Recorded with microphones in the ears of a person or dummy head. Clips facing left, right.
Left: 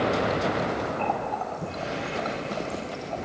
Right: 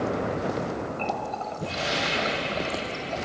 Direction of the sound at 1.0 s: 30° right (ahead or behind).